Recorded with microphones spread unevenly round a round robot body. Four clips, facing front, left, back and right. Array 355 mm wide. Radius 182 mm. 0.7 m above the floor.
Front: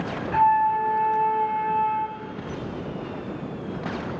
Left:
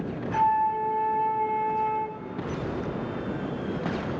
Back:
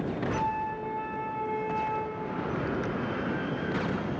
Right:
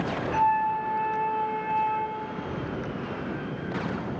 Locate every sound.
0.3 s a flute: straight ahead, 5.5 m